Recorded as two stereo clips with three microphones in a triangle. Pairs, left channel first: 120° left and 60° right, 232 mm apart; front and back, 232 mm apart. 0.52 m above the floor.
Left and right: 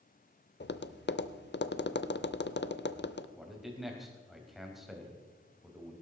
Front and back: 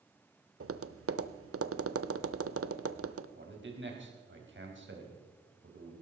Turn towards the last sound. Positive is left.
turn(degrees=-150)